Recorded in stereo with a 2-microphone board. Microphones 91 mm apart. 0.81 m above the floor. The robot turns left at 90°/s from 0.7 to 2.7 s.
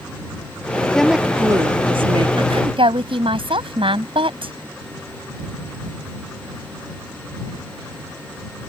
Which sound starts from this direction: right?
A woman speaking, at 2.4 s.